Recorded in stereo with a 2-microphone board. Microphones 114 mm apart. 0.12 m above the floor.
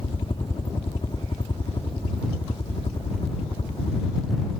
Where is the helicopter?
50° left (ahead or behind); by 4.6 s 55° left (ahead or behind).